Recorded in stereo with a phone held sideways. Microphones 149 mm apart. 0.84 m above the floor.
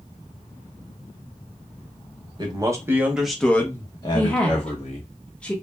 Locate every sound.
2.4 s a man speaking: 30° right (ahead or behind), 0.9 m; by 5.1 s 55° left (ahead or behind), 1.1 m
4.1 s a woman speaking: 10° left (ahead or behind), 1.1 m